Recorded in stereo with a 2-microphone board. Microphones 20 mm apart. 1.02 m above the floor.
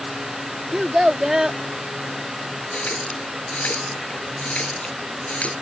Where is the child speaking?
25° right (ahead or behind).